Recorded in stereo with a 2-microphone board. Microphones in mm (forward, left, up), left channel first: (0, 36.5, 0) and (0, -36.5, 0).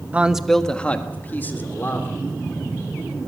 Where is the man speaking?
20° right (ahead or behind), 0.9 m; by 2.1 s 35° left (ahead or behind), 3 m.